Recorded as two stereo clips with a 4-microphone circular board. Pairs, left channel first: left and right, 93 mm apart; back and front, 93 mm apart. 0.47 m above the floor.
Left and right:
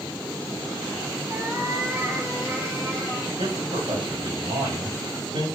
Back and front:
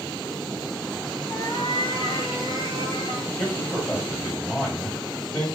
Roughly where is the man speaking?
Right.